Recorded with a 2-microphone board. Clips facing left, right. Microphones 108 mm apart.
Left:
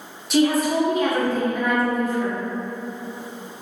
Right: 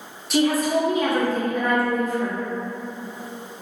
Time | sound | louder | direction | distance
0.3 | a woman speaking | left 1 dB | centre (ahead or behind) | 0.9 m